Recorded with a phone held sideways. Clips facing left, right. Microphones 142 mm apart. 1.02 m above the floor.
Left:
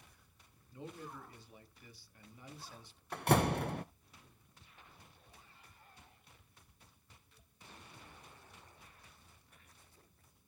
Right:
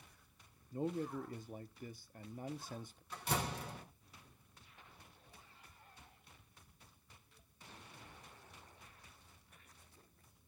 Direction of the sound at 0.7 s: 45° right (ahead or behind).